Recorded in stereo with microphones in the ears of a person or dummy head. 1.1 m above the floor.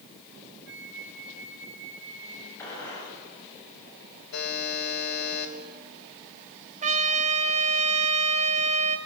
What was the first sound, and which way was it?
A flute, 65° right (ahead or behind).